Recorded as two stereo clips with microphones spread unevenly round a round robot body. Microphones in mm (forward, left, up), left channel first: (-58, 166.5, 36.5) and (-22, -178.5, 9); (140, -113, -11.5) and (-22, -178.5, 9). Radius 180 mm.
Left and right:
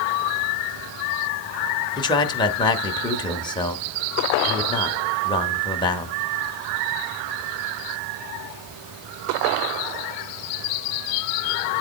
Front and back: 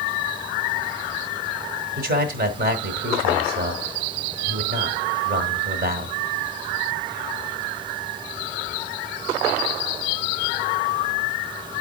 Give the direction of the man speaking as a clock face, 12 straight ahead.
6 o'clock.